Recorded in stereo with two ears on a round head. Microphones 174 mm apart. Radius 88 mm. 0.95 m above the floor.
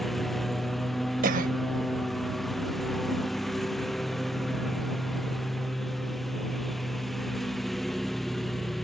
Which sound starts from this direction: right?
A cough, at 1.2 s.